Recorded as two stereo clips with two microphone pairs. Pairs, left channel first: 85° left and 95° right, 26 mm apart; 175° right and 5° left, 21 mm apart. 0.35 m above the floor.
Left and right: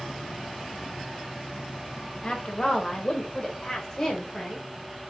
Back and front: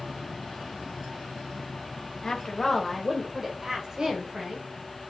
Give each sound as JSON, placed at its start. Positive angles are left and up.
{"t": 2.2, "sound": "a woman speaking", "azimuth_deg": 125, "distance_m": 1.6}